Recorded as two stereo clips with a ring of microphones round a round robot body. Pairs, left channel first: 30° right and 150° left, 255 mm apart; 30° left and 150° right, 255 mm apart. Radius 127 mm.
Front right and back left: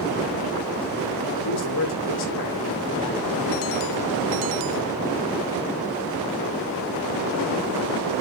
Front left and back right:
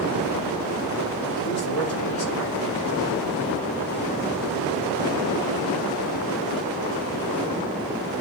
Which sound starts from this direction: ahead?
A man speaking, at 1.4 s.